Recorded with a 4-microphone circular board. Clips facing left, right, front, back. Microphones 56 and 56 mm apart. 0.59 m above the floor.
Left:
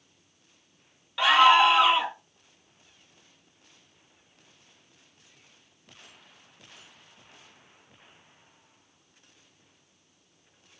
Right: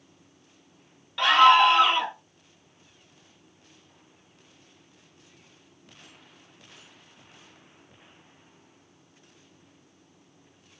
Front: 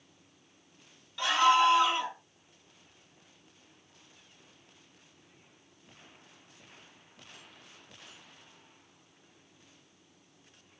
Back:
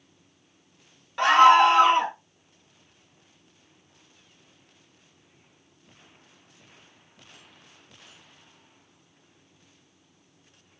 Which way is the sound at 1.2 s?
175° left.